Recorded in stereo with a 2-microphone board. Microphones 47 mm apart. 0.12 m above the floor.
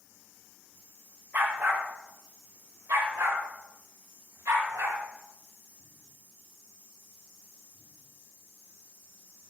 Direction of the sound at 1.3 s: 45° right (ahead or behind).